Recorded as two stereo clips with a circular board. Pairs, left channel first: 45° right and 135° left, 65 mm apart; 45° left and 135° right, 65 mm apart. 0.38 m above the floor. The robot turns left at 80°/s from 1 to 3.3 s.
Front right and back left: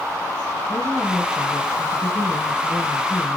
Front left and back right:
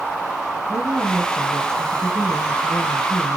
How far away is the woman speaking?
About 4 m.